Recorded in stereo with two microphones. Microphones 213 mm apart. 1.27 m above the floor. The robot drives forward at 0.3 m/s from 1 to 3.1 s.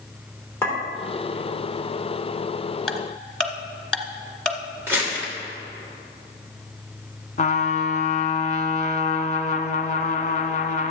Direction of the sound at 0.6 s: 10° left (ahead or behind).